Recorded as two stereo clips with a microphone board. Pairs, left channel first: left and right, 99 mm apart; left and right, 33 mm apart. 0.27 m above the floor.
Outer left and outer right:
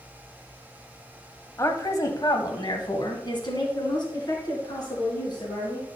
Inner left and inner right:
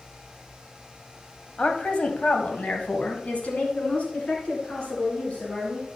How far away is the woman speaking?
About 1.3 m.